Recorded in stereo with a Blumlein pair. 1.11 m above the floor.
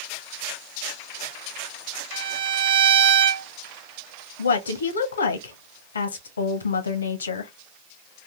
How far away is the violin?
About 0.5 m.